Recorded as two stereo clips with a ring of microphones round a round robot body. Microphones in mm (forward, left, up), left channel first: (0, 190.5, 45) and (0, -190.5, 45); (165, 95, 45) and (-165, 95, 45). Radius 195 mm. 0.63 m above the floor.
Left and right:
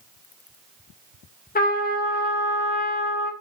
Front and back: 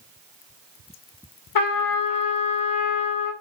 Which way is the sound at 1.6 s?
20° left.